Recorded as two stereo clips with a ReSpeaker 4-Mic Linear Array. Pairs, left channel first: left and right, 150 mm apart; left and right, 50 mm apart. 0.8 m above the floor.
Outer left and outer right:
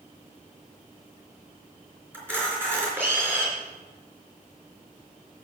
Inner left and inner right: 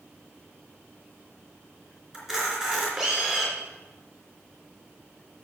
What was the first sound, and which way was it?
A camera shutter, 15° right (ahead or behind).